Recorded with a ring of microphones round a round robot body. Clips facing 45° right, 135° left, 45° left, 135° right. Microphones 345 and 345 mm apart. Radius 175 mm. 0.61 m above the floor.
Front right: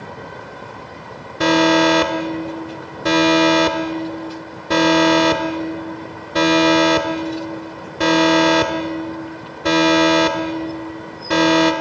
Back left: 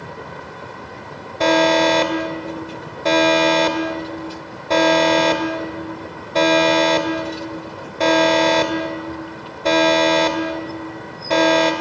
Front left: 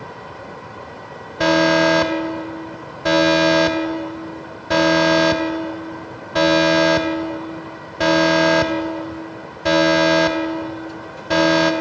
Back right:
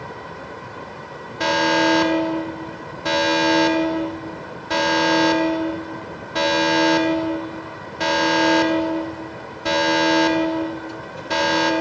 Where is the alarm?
25° left, 2.5 m.